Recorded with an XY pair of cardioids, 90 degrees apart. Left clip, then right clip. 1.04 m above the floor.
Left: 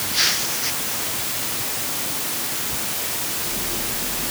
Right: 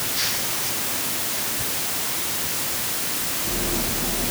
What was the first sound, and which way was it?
Only background noise.